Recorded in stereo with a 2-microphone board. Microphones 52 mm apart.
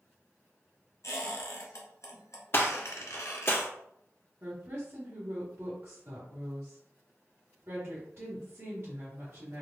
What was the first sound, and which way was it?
A squeak, 70° left (ahead or behind).